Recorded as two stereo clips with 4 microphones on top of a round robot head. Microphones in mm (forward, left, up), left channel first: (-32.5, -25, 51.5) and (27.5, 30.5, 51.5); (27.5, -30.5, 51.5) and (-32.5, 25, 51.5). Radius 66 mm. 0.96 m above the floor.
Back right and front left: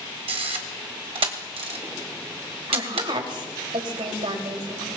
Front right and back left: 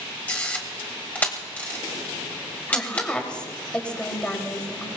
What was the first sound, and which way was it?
A camera shutter, 30° left.